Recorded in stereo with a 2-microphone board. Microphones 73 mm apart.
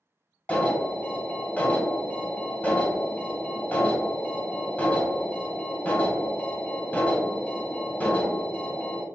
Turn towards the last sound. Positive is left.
turn(degrees=20)  # may be behind; listen again after turning